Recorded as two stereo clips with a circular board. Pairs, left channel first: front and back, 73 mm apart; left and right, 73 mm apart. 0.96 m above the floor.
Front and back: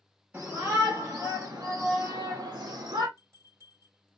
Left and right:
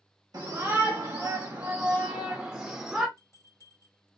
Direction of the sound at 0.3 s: 115° right.